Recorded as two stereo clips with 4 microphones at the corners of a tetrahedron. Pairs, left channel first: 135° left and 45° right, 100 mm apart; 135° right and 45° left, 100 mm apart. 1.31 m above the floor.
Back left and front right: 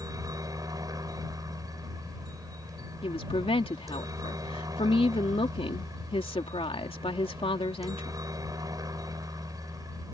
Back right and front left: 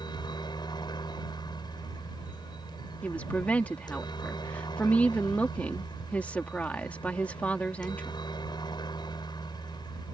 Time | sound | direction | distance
0.0 | a helicopter | 95° right | ?
3.0 | a woman speaking | 150° left | ?